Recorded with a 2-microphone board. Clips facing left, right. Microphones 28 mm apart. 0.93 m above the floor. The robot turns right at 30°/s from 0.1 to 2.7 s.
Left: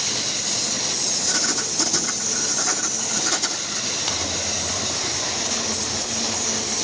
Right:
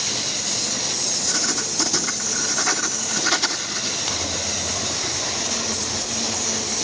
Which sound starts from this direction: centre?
Crumpling, at 4.1 s.